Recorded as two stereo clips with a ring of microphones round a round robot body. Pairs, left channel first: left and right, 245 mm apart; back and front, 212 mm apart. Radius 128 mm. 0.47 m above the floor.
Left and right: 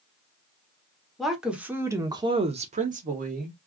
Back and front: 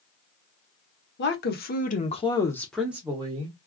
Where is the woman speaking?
Straight behind, 1.1 m; by 3.6 s 50° right, 0.9 m.